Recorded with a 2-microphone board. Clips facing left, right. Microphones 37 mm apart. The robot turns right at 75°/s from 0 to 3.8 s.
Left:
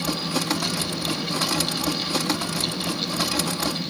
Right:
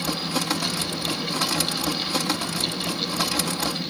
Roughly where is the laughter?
I don't hear laughter.